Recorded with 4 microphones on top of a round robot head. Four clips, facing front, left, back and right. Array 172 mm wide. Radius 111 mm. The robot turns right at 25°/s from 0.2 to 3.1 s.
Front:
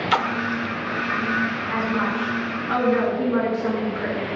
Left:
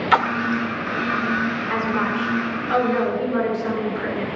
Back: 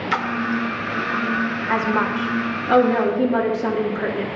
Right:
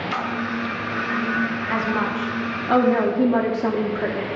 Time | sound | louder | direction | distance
0.1 | a splash | left 8 dB, even | 75° left | 0.9 m
1.7 | a woman speaking | left 1 dB, back 5 dB | 155° right | 2.5 m